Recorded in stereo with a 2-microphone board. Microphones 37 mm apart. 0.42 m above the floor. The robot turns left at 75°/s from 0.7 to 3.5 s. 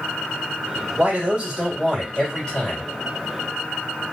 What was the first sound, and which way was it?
A man speaking, 110° right.